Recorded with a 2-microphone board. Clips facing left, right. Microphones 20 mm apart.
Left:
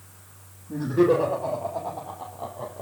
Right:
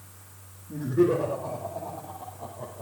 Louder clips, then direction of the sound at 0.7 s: Left 3 dB; 45° left (ahead or behind).